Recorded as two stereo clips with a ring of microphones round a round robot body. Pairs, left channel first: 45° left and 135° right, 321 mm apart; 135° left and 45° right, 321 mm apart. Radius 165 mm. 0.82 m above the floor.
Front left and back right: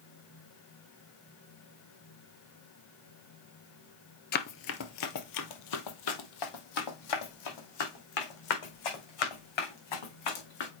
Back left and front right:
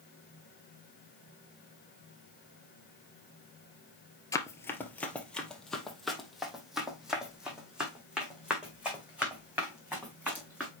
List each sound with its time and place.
4.3 s running footsteps: 65° left, 0.8 m; by 10.7 s 40° left, 4.5 m